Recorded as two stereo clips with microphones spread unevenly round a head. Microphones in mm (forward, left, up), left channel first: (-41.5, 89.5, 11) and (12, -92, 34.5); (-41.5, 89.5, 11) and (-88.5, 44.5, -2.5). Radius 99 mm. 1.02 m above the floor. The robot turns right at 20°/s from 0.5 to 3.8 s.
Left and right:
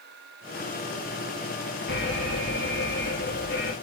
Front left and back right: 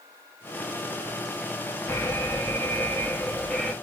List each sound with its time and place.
1.9 s an alarm: 90° left, 3.5 m; by 3.7 s 130° left, 3.5 m